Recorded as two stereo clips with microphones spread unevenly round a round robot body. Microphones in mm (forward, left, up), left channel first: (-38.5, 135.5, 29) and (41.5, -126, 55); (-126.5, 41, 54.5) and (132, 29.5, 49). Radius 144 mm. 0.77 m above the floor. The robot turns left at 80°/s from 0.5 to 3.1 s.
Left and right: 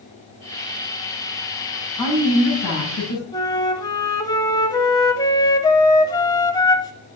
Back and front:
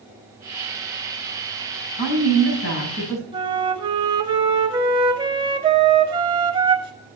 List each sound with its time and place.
2.0 s a woman speaking: 170° right, 7 m; by 3.2 s 100° left, 7 m
3.3 s a flute: 40° left, 0.6 m